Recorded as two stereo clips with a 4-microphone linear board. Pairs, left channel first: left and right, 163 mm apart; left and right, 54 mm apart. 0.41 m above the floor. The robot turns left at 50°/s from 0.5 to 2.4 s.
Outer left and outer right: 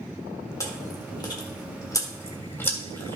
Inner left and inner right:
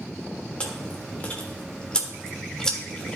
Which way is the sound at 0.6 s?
20° left (ahead or behind).